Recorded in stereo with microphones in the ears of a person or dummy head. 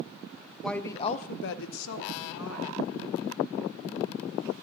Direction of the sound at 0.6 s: 10° left (ahead or behind).